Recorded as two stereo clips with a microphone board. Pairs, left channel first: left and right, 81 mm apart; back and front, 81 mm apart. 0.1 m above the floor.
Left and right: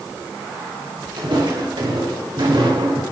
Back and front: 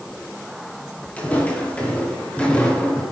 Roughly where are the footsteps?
Right.